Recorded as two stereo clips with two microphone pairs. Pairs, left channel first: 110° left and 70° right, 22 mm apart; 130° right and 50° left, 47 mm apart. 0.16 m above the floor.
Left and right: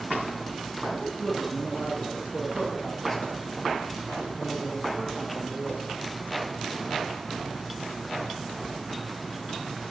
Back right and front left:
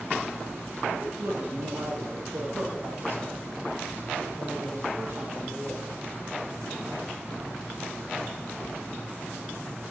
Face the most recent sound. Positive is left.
turn(degrees=10)